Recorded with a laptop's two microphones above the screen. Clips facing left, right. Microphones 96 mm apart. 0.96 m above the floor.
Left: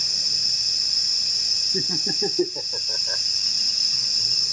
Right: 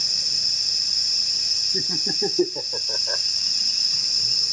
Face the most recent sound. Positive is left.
turn(degrees=-20)  # may be behind; listen again after turning